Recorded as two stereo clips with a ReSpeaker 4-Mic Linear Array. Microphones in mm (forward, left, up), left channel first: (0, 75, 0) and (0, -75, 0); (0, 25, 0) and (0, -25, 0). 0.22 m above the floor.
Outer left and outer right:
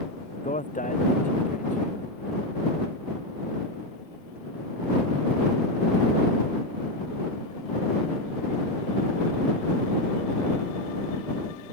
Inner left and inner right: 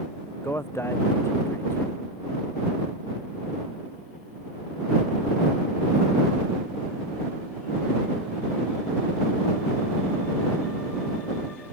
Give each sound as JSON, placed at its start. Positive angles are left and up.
{"t": 0.4, "sound": "a man speaking", "side_deg": 60}